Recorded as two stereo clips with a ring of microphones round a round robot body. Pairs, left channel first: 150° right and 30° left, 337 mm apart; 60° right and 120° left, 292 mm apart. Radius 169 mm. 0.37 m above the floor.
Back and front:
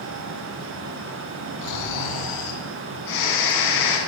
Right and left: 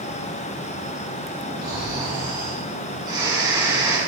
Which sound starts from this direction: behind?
Snoring, at 1.6 s.